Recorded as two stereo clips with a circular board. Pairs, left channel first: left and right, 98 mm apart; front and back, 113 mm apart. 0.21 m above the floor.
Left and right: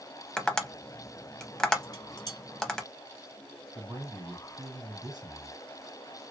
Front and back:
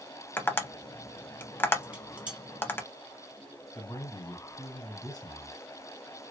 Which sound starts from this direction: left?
Dishes clattering, at 1.8 s.